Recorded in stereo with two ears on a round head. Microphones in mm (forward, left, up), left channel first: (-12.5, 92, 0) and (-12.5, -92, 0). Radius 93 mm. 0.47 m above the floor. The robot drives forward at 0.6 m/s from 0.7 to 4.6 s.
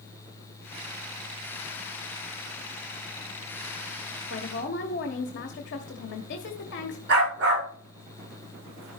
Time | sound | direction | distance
4.3 | a woman speaking | 65° left (ahead or behind) | 1.6 m
7.1 | a dog barking | 60° right (ahead or behind) | 9 m